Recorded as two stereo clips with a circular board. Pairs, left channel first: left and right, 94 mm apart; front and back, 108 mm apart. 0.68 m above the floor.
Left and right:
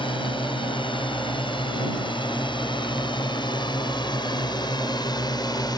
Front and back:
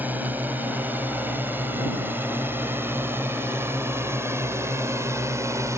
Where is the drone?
105° left; by 5.8 s 120° left.